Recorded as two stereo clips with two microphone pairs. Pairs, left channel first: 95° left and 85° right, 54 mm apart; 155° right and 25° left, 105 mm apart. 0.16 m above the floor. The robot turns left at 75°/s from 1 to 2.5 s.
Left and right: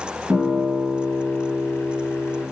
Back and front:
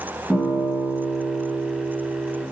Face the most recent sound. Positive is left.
turn(degrees=165)